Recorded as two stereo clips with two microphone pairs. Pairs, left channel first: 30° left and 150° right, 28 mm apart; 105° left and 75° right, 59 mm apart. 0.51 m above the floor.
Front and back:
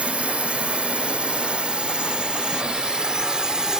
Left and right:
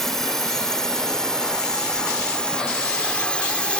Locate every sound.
0.0 s a drone: 175° right; by 3.8 s 160° left